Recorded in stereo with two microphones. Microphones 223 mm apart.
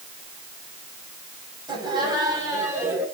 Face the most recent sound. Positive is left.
turn(degrees=-10)  # may be behind; listen again after turning